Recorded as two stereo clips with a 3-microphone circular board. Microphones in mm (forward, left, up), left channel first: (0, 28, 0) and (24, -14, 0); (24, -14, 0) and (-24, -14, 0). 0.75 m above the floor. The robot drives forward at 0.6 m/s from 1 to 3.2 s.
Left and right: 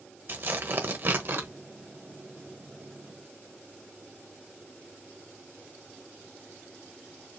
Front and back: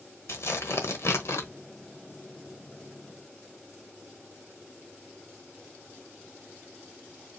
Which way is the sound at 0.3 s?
20° right.